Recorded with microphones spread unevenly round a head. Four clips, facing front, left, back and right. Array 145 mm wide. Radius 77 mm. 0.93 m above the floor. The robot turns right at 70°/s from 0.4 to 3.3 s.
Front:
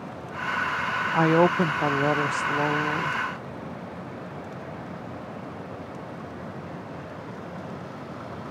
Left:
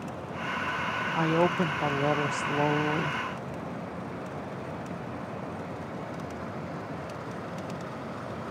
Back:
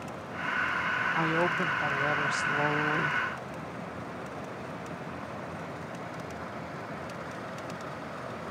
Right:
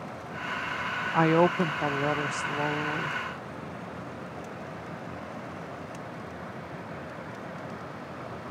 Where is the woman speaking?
35° right; by 3.2 s 110° left.